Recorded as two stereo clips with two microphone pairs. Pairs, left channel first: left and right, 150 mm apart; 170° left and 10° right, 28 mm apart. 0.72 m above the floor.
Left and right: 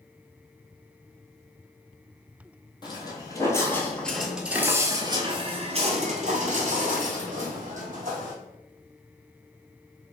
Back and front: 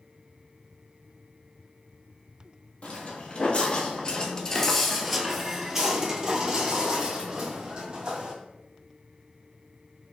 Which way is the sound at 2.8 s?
145° left.